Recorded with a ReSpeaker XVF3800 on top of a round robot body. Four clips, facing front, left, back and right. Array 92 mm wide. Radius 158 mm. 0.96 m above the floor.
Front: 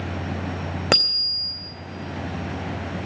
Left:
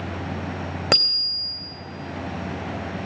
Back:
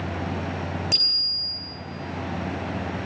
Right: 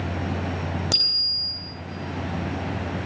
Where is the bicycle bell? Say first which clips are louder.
Left 7 dB, front 10 dB; 35° left, 3 m.